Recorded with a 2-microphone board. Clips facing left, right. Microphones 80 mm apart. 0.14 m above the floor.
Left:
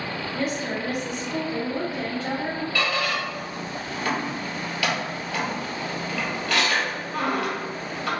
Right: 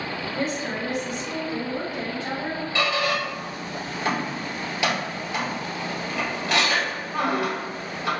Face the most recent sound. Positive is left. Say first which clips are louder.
# right 3 dB
turn(degrees=-20)  # may be behind; listen again after turning